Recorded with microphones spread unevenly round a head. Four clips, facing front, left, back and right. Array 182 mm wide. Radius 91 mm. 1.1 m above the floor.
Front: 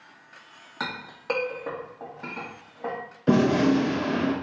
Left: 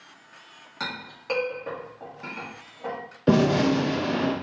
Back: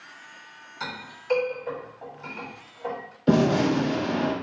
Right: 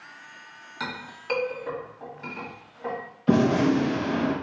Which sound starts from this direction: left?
A gunshot, at 3.3 s.